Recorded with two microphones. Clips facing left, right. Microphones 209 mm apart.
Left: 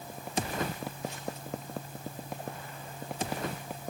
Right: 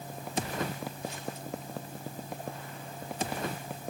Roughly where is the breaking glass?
I don't hear breaking glass.